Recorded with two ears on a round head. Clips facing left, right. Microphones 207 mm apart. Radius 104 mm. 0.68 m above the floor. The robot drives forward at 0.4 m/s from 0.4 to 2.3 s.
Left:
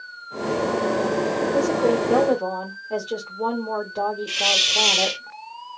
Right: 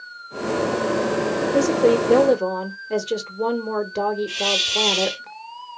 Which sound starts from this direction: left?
A hiss, at 4.3 s.